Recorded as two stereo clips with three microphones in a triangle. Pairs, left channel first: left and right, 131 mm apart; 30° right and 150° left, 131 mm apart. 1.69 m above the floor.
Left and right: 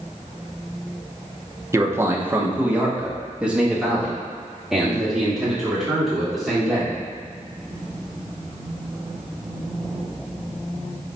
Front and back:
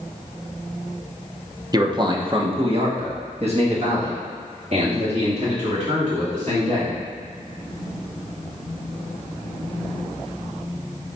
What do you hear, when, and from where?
1.7 s a man speaking: 155° right, 1.0 m; by 7.0 s straight behind, 4 m